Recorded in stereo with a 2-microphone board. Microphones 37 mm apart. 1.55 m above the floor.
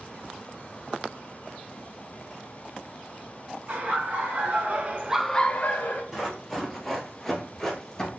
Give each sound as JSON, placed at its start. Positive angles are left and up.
{"t": 3.7, "sound": "laughter", "side_deg": -70, "distance_m": 2.0}
{"t": 6.1, "sound": "running footsteps", "side_deg": -10, "distance_m": 1.9}